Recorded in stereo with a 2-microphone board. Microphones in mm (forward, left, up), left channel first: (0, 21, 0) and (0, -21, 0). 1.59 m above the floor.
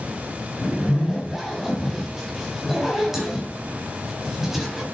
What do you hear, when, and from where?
0.6 s a zipper: 5° right (ahead or behind), 3.5 m